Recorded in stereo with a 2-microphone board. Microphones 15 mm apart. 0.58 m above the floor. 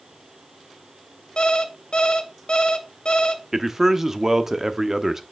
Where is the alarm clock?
70° left (ahead or behind), 1.2 m.